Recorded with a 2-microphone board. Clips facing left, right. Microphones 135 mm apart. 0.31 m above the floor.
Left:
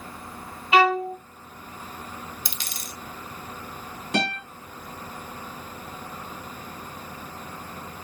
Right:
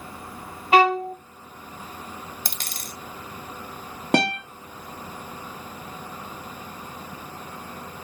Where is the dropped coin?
50° right (ahead or behind), 1.1 m.